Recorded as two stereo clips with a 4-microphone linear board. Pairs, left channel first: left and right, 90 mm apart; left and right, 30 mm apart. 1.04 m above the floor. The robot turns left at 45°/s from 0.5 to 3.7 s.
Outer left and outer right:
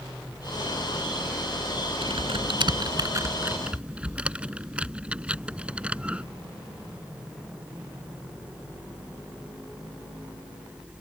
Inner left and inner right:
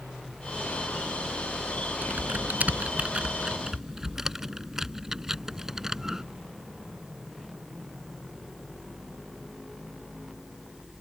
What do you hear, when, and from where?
2.0 s typing on a keyboard: 85° right; by 6.2 s 10° right (ahead or behind)